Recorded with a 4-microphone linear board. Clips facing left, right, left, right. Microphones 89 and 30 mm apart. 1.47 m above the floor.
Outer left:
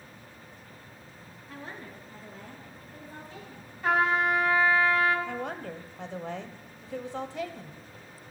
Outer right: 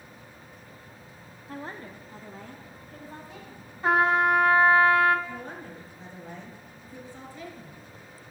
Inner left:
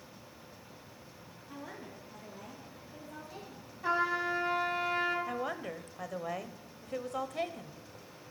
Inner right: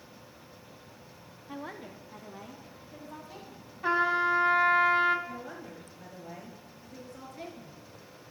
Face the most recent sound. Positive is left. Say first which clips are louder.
# outer left 4 dB, inner left 5 dB
turn(degrees=75)  # may be behind; listen again after turning